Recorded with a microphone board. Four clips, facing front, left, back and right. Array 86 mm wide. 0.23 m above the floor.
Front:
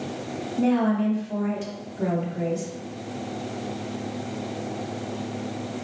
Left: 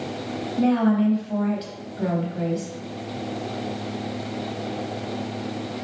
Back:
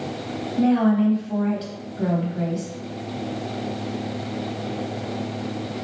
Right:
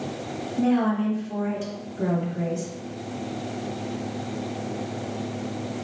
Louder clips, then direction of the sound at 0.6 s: Left 2 dB, back 3 dB; 125° left.